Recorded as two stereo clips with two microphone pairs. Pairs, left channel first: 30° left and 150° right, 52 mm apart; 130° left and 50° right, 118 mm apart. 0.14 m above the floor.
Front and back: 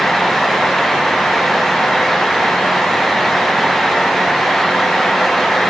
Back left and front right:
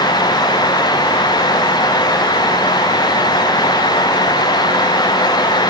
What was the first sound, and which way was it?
Only background noise.